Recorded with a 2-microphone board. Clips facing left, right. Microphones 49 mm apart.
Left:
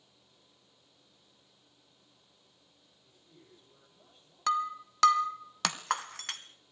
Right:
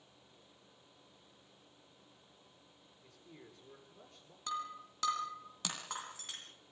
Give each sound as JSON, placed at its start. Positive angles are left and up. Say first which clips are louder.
{"t": 3.0, "sound": "a man speaking", "louder": "right 4 dB", "side_deg": -85, "distance_m": 9.5}
{"t": 4.5, "sound": "breaking glass", "louder": "left 11 dB", "side_deg": 70, "distance_m": 1.8}